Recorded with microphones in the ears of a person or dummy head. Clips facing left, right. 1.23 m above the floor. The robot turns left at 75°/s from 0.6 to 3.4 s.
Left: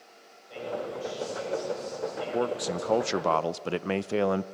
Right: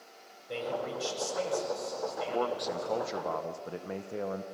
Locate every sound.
0.5 s a man speaking: 65° right, 6.5 m; by 3.1 s 105° left, 6.5 m
2.3 s a man speaking: 160° left, 0.5 m; by 4.4 s 80° left, 0.5 m